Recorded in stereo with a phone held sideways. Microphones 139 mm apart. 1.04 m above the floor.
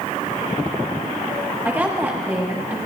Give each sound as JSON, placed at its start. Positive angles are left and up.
{"t": 1.6, "sound": "a woman speaking", "side_deg": -15, "distance_m": 1.5}